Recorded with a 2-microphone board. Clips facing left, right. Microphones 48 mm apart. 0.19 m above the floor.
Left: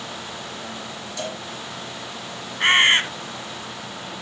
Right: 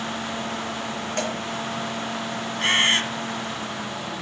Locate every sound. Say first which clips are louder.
1.2 s a cowbell: right 3 dB; 55° right (ahead or behind), 4 m
2.6 s a bird: left 5 dB; 30° left (ahead or behind), 1.3 m